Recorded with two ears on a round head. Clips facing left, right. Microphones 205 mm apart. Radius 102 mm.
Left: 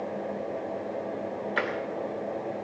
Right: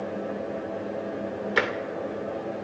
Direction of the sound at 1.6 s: 60° right (ahead or behind).